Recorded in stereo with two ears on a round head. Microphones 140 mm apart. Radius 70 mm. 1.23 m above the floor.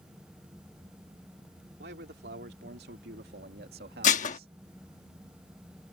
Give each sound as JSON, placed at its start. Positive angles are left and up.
{"t": 1.8, "sound": "a man speaking", "side_deg": -85}
{"t": 4.0, "sound": "dishes clattering", "side_deg": 55}